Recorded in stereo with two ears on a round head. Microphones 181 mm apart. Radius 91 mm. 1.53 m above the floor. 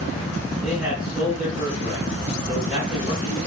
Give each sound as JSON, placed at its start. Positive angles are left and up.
{"t": 0.6, "sound": "a man speaking", "side_deg": -30, "distance_m": 5.5}